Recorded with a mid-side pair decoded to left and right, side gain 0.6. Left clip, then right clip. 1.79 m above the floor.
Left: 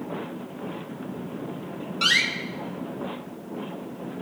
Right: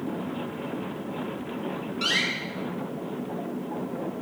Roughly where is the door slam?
Ahead left.